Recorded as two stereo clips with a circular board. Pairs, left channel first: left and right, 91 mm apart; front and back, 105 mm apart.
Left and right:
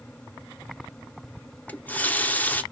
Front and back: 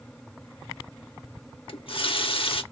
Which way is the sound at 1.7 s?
20° left.